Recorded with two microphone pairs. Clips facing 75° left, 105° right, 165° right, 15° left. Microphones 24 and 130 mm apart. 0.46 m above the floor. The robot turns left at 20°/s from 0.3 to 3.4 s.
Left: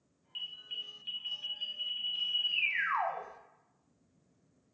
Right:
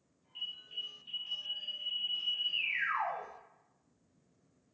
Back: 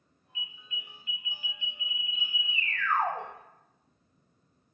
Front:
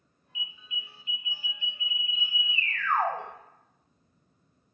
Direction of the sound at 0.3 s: 90° left.